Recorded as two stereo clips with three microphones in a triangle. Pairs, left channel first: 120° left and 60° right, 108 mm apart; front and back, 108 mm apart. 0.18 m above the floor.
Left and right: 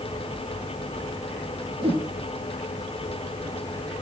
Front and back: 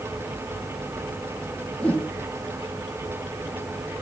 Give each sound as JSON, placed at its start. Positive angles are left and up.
{"t": 1.8, "sound": "a whoosh", "azimuth_deg": -80, "distance_m": 5.5}